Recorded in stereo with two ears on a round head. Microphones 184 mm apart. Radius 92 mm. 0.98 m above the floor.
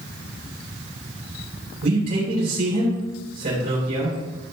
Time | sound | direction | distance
1.8 | a man speaking | 45° right (ahead or behind) | 3.5 m